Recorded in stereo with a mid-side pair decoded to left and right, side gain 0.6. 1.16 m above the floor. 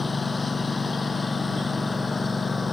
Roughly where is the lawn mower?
Ahead.